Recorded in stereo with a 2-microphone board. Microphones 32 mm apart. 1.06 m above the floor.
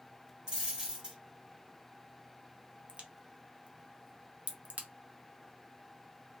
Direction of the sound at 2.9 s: 45° right (ahead or behind).